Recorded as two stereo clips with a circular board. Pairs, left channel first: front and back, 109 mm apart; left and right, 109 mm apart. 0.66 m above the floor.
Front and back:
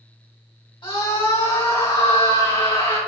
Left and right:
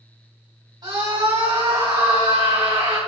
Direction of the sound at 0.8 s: 40° right.